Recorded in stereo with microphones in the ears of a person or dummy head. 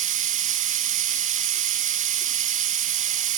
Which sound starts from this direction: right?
Running water, at 0.0 s.